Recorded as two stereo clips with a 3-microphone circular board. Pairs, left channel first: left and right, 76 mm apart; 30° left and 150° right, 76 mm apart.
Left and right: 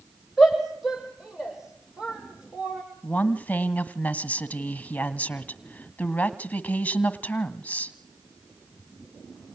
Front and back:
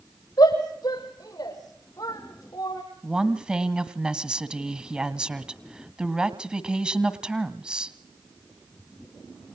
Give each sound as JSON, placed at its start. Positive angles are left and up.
{"t": 0.4, "sound": "a shout", "azimuth_deg": 0, "distance_m": 6.5}
{"t": 3.0, "sound": "a woman speaking", "azimuth_deg": 145, "distance_m": 1.3}